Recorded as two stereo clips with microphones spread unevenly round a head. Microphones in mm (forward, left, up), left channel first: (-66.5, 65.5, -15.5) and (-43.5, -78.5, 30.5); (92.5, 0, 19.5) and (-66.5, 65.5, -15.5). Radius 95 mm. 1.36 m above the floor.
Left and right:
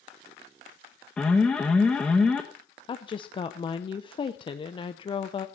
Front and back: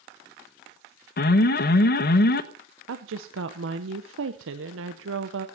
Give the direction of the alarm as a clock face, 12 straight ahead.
12 o'clock.